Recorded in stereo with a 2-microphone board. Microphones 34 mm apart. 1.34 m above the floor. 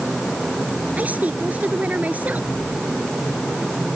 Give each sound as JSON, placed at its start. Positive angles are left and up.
{"t": 1.0, "sound": "a woman speaking", "side_deg": -50}